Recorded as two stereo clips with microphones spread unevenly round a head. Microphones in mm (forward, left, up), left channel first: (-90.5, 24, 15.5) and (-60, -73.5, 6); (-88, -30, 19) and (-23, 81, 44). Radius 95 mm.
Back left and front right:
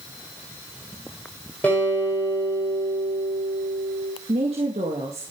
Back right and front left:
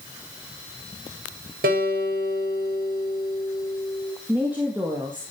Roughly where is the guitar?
Ahead left.